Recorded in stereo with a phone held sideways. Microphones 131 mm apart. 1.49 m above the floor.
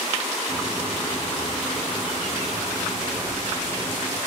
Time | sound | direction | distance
0.5 | a bird | centre (ahead or behind) | 4.5 m